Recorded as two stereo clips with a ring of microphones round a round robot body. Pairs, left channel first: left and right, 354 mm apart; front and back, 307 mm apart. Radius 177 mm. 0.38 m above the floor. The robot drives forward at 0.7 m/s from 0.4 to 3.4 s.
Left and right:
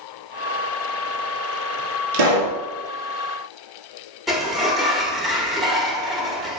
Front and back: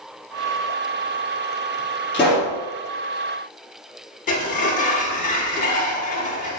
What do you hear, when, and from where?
2.1 s a pop: 85° right, 2.5 m; by 2.6 s 95° right, 2.5 m
4.3 s a sliding door: straight ahead, 1.0 m